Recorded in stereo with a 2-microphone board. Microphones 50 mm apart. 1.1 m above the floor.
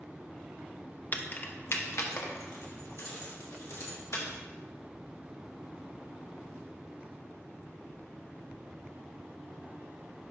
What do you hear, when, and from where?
1.1 s keys jangling: 35° left (ahead or behind), 0.5 m; by 4.2 s 85° left, 2 m